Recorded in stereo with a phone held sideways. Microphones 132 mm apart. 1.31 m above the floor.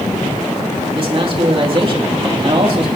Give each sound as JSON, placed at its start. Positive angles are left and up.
{"t": 0.9, "sound": "a man speaking", "side_deg": -40, "distance_m": 3.0}